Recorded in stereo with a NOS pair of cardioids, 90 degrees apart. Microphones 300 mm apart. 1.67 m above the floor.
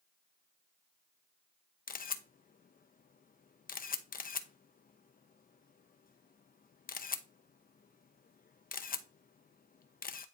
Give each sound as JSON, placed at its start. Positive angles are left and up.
{"t": 1.9, "sound": "a camera shutter", "azimuth_deg": 30, "distance_m": 0.8}